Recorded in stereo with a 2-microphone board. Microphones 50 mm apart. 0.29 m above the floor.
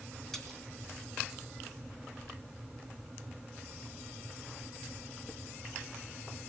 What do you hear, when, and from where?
0.3 s a splash: 5° left (ahead or behind), 3 m